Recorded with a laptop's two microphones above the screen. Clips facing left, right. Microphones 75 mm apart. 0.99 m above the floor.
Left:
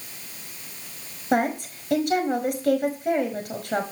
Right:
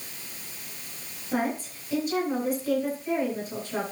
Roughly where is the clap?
No clap in this recording.